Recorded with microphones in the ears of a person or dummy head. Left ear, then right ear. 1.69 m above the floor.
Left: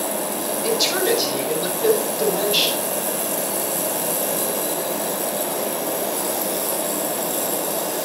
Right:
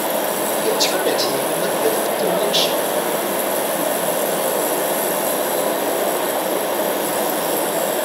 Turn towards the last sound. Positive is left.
turn(degrees=10)  # may be behind; listen again after turning